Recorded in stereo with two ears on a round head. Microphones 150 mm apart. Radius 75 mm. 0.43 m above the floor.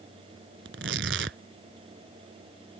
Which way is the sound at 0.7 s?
85° right.